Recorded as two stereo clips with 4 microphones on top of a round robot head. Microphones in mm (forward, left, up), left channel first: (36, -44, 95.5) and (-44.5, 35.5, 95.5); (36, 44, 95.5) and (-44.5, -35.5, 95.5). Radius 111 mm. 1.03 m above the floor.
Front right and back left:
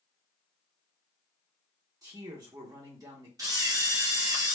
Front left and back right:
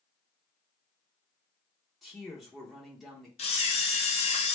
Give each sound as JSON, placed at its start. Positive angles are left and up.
{"t": 2.0, "sound": "a man speaking", "azimuth_deg": 135, "distance_m": 0.9}
{"t": 3.4, "sound": "a camera shutter", "azimuth_deg": 75, "distance_m": 0.7}